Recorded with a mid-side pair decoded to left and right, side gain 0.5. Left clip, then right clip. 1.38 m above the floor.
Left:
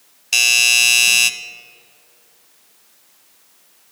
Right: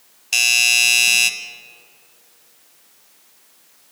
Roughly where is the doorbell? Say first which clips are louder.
Left 2 dB; ahead.